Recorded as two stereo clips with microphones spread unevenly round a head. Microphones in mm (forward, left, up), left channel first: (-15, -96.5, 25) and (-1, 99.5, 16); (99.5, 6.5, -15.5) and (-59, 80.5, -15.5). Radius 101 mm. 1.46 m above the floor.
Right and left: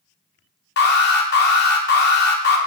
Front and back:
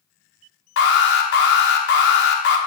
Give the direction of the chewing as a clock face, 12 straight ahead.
No chewing in this recording.